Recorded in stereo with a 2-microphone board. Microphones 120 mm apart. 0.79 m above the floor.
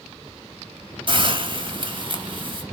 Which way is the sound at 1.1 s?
45° right (ahead or behind).